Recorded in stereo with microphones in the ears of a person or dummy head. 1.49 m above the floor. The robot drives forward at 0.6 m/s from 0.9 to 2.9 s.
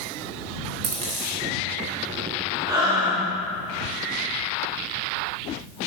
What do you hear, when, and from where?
0.8 s a dropped coin: 35° right (ahead or behind), 1.0 m; by 1.4 s 30° right (ahead or behind), 1.2 m
2.7 s breathing: 20° right (ahead or behind), 1.5 m